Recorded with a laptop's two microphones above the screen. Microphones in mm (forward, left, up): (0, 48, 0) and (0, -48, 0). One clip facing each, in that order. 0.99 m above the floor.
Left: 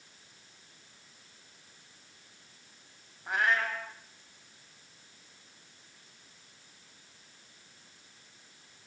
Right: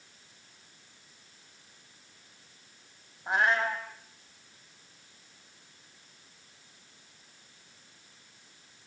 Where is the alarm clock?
No alarm clock in this recording.